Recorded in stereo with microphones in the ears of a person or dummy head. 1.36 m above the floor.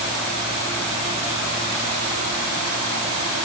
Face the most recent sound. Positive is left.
No sound to turn to.